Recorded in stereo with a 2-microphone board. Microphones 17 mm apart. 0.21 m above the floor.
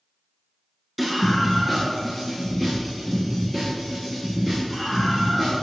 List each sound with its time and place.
1.0 s a scream: centre (ahead or behind), 2.5 m; by 5.6 s 15° left (ahead or behind), 7.5 m